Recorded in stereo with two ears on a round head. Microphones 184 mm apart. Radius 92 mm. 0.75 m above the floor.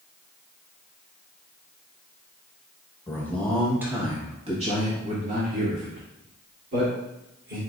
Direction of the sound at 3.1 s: 15° left (ahead or behind).